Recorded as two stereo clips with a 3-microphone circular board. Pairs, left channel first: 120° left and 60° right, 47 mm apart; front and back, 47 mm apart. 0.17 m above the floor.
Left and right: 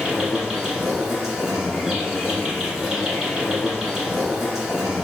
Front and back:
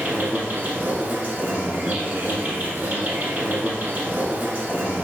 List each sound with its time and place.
0.0 s an insect: 140° right, 1.5 m